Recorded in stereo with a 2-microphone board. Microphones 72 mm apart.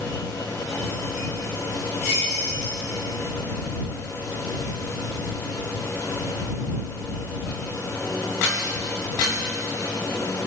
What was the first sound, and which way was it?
Only background noise.